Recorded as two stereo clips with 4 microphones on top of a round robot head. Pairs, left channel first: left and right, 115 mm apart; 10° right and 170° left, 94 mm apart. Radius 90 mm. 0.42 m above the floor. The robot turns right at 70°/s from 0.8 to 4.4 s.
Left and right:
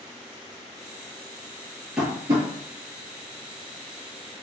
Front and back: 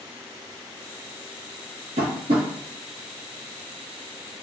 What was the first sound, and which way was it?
Tapping, 175° right.